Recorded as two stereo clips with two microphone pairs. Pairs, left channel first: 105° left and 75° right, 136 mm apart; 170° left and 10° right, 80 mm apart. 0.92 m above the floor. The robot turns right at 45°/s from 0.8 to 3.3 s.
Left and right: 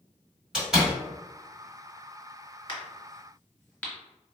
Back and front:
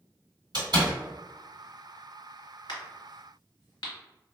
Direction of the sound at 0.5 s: 10° left.